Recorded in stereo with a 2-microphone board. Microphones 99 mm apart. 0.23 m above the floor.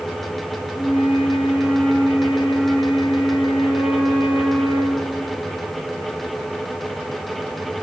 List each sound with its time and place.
0.8 s a flute: 65° left (ahead or behind), 4 m